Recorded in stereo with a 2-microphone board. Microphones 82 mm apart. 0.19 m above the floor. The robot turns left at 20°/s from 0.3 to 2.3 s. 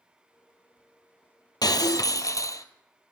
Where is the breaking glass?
60° left (ahead or behind), 1.1 m; by 2.6 s 45° left (ahead or behind), 1.1 m.